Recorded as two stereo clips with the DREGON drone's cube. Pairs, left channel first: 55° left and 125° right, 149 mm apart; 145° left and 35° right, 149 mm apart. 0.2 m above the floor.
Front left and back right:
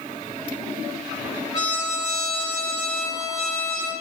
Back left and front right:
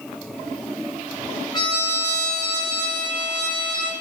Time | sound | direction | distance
1.5 | a trumpet | 105° left | 1.6 m